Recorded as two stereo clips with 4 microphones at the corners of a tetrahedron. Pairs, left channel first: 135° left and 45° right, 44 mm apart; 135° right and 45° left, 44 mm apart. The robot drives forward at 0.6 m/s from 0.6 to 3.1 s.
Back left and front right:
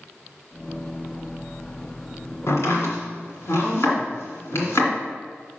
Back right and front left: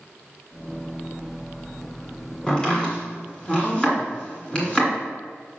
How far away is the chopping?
About 2 m.